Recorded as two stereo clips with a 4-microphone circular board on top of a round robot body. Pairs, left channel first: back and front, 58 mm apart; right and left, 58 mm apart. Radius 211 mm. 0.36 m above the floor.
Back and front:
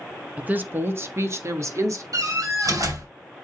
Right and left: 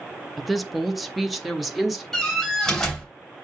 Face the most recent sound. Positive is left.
turn(degrees=-5)